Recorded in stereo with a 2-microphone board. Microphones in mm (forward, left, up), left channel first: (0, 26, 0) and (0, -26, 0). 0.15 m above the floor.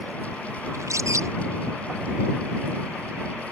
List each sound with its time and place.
0.7 s a bird: 75° right (ahead or behind)